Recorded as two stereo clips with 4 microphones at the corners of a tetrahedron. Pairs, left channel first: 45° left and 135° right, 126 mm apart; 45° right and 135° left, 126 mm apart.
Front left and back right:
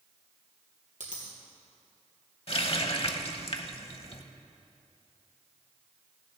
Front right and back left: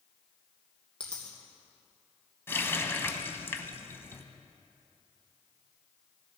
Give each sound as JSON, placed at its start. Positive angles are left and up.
{"t": 1.0, "sound": "a dropped coin", "azimuth_deg": -125, "distance_m": 3.0}
{"t": 2.5, "sound": "a running tap", "azimuth_deg": 20, "distance_m": 0.9}